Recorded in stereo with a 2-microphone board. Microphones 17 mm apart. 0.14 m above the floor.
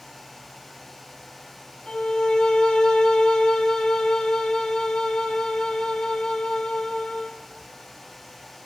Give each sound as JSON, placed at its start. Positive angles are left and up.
{"t": 1.9, "sound": "a violin", "side_deg": 65, "distance_m": 3.5}